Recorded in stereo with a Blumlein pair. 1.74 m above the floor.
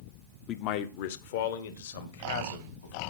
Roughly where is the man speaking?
Ahead left.